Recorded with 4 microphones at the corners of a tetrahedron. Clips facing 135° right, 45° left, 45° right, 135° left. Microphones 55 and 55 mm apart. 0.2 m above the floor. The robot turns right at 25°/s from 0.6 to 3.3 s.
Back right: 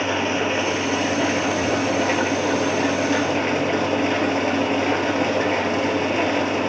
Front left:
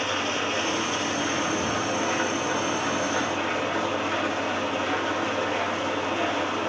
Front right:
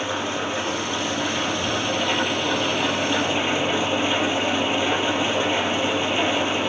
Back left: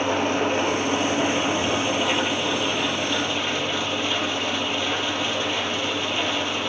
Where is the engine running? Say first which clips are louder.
Back right 5 dB, back left 4 dB; 175° left, 2.5 m; by 6.7 s 120° right, 2.5 m.